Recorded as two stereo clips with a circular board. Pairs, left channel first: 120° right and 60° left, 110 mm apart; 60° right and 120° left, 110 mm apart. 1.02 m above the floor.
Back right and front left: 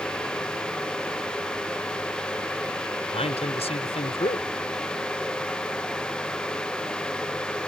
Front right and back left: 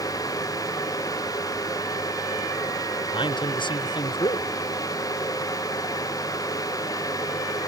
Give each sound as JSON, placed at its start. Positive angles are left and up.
{"t": 3.1, "sound": "a man speaking", "azimuth_deg": -100}